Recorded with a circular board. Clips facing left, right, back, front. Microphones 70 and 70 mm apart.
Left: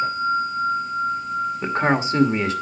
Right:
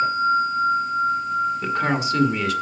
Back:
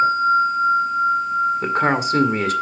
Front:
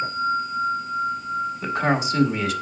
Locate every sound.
1.6 s a man speaking: 150° left, 1.9 m